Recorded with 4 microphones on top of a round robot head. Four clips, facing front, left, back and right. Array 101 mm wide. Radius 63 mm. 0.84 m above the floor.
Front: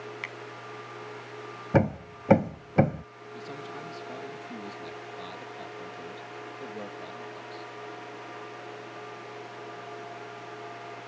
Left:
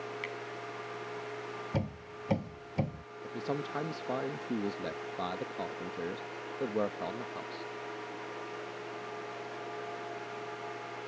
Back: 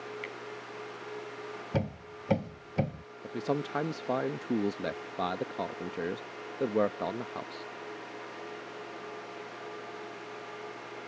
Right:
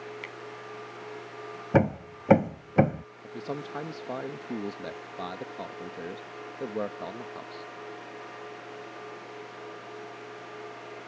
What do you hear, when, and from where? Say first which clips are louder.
0.2 s a finger snap: left 2 dB, front 1 dB; straight ahead
1.7 s hammering: right 16 dB, front 10 dB; 55° right
3.2 s a man speaking: even, back 9 dB; straight behind